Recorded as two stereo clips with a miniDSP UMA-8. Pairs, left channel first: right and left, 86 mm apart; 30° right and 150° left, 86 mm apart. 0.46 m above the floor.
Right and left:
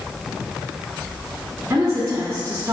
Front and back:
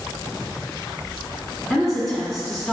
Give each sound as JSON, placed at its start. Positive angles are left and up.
{"t": 1.7, "sound": "a woman speaking", "azimuth_deg": 55, "distance_m": 1.2}